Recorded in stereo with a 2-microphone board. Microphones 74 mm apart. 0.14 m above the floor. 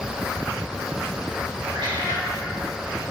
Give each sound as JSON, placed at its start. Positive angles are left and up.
{"t": 1.7, "sound": "a cat meowing", "side_deg": -85, "distance_m": 4.5}